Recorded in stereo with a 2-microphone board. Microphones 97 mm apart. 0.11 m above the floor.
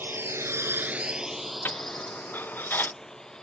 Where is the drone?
20° right (ahead or behind); by 3.4 s 5° left (ahead or behind).